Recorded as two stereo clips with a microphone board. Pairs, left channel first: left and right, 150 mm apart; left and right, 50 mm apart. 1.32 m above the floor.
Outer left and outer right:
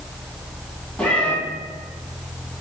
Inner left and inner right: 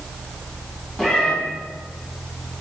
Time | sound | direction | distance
1.0 | a cat meowing | 10° left (ahead or behind) | 1.7 m